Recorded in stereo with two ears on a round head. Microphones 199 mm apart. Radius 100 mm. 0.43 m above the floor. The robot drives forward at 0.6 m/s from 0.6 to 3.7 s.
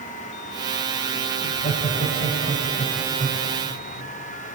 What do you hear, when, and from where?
1.4 s laughter: 25° left (ahead or behind), 3 m; by 3.5 s 15° left (ahead or behind), 4 m